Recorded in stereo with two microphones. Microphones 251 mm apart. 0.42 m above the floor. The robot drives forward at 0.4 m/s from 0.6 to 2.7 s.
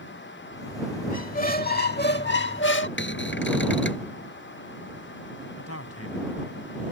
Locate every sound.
1.1 s a squeak: 35° left (ahead or behind); by 2.9 s 50° left (ahead or behind)
3.0 s a cupboard door: 50° left (ahead or behind)
5.6 s a man speaking: 70° left (ahead or behind)